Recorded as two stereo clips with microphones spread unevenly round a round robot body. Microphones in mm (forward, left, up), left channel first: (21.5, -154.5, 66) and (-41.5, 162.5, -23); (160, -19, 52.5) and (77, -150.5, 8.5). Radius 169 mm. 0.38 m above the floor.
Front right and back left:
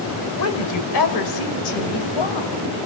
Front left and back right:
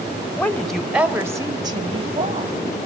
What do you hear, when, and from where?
0.3 s a woman speaking: 25° right, 1.8 m; by 2.6 s 90° right, 2.5 m